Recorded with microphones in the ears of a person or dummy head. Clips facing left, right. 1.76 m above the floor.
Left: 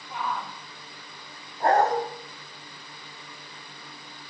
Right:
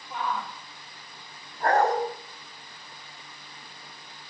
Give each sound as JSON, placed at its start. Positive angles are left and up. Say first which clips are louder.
{"t": 0.1, "sound": "a shout", "louder": "right 1 dB", "side_deg": -10, "distance_m": 3.0}
{"t": 1.6, "sound": "a dog barking", "louder": "left 1 dB", "side_deg": 20, "distance_m": 4.5}